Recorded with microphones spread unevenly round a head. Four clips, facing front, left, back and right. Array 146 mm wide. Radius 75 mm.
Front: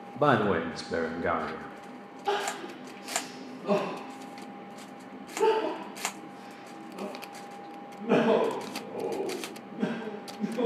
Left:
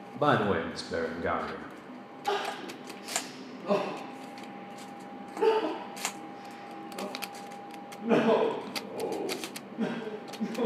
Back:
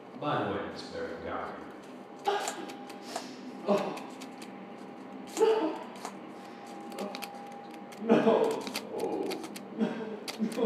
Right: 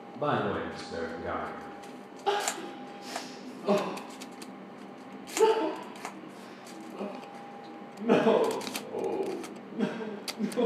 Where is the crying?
115° right, 3 m.